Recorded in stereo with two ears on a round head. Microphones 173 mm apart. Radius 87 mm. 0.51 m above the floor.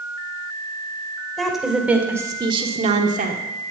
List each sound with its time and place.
1.4 s a woman speaking: centre (ahead or behind), 2 m; by 3.4 s 45° right (ahead or behind), 1.4 m